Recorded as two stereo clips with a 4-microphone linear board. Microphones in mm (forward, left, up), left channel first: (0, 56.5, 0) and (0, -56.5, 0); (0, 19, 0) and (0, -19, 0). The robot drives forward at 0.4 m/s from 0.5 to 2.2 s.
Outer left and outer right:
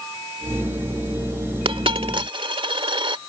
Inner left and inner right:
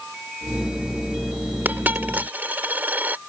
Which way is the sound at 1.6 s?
55° right (ahead or behind).